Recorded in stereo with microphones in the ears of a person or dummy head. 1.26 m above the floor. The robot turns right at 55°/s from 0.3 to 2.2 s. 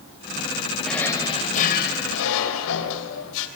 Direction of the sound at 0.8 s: Straight ahead.